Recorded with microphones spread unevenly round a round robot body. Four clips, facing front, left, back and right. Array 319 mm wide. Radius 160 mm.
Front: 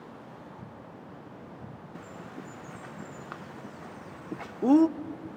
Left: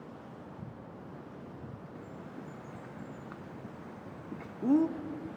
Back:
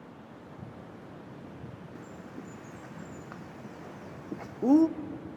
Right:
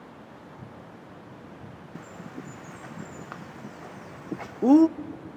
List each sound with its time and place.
1.9 s a bird: 70° right, 0.6 m